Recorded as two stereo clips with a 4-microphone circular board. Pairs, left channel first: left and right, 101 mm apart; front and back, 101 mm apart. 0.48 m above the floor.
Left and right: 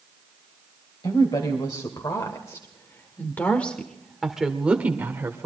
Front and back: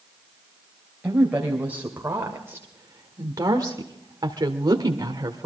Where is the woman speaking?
110° left, 2.5 m; by 5.5 s 145° right, 1.8 m.